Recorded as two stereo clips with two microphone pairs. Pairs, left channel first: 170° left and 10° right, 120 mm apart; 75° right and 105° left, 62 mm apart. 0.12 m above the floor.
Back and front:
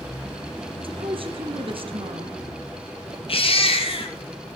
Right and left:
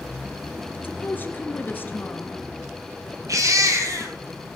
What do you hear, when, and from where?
0.8 s a woman speaking: 30° right, 1.6 m
3.3 s a baby crying: 135° left, 2.5 m